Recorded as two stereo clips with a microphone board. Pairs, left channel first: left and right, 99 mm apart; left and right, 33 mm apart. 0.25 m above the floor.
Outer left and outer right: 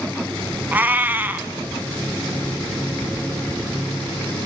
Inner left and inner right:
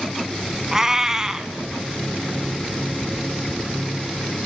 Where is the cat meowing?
20° right (ahead or behind), 0.7 m.